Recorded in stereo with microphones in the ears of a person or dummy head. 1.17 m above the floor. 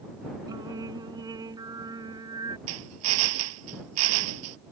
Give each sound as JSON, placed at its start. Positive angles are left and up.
{"t": 0.5, "sound": "singing", "side_deg": -20}
{"t": 2.7, "sound": "a drill", "side_deg": -85}